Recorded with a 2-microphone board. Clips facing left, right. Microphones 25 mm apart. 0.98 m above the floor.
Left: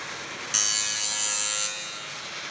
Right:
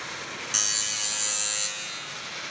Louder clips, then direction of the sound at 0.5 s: Left 1 dB; centre (ahead or behind).